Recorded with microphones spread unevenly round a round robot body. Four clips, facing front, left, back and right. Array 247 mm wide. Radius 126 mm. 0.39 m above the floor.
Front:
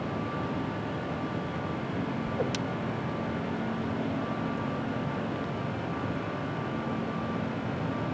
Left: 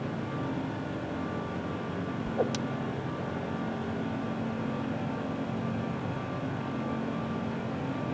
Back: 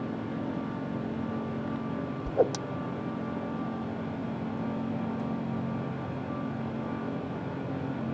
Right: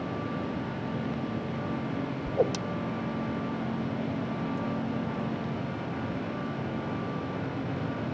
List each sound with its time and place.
2.2 s a whoosh: 145° right